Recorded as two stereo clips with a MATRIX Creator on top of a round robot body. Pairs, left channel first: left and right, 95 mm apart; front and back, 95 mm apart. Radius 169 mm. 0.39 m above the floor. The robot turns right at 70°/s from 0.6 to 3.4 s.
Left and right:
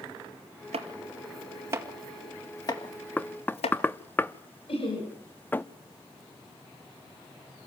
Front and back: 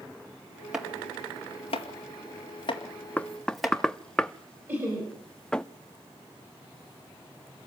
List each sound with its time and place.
0.7 s chopping: 95° right, 2 m; by 3.8 s 90° left, 2 m
3.2 s knocking: 50° left, 1.1 m; by 5.7 s 70° left, 1.1 m
4.7 s laughter: 115° left, 6 m